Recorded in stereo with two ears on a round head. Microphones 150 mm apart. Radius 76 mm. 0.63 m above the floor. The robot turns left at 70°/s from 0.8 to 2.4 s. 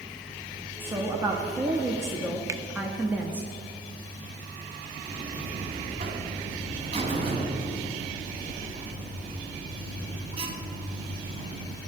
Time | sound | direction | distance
0.8 | a woman speaking | 15° right (ahead or behind) | 0.9 m
2.5 | a finger snap | 20° right (ahead or behind) | 0.6 m
5.1 | a buzzer | 35° right (ahead or behind) | 1.6 m